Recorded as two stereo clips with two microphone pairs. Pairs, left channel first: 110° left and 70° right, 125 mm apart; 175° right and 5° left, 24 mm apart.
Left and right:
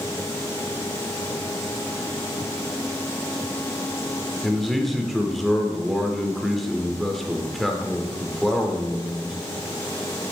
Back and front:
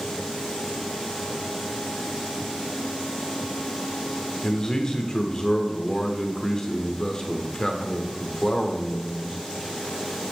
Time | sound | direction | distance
4.4 | a man speaking | 165° right | 0.9 m